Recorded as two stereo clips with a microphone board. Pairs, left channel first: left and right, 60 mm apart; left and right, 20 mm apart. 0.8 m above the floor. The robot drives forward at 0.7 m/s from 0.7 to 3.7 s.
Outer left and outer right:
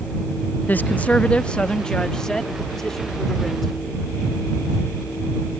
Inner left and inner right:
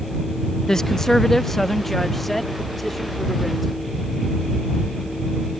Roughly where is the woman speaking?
Left.